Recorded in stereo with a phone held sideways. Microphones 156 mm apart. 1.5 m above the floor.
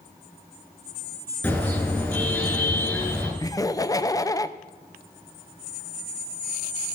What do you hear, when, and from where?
1.4 s a car horn: 15° left (ahead or behind), 9 m
3.4 s laughter: 20° left (ahead or behind), 0.8 m